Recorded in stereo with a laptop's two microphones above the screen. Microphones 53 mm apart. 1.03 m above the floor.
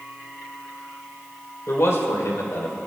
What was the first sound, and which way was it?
A man speaking, 65° left (ahead or behind).